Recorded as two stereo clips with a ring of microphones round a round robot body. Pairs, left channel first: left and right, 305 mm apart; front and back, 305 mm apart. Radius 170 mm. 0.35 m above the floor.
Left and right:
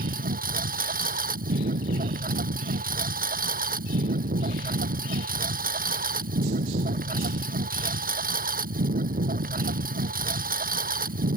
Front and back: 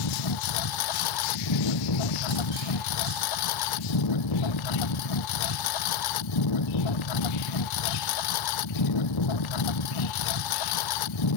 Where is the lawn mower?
25° right.